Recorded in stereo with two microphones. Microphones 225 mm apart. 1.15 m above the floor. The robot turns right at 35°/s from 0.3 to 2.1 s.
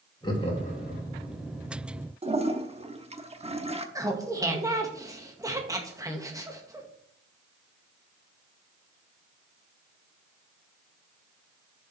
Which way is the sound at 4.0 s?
15° right (ahead or behind).